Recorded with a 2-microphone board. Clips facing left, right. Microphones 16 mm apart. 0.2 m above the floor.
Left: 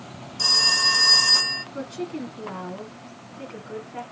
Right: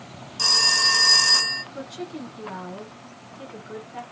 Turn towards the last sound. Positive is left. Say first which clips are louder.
# left 3 dB
turn(degrees=0)  # may be behind; listen again after turning